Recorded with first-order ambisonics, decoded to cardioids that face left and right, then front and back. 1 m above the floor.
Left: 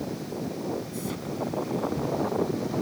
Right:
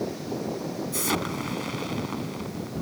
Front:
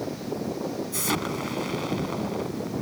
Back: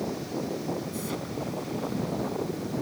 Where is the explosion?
45° right.